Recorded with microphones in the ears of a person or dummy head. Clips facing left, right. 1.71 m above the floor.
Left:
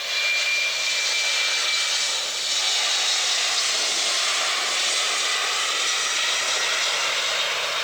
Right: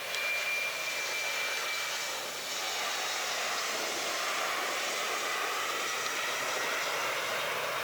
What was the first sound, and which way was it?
Only background noise.